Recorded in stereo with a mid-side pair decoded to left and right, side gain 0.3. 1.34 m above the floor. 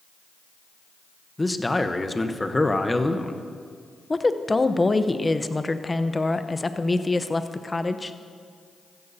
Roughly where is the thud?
No thud in this recording.